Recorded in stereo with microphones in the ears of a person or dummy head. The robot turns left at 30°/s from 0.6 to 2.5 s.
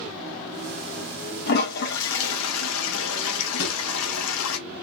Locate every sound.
1.5 s a toilet flushing: 135° left, 0.8 m; by 4.6 s 105° left, 0.8 m
3.6 s a drawer: 75° left (ahead or behind), 1.7 m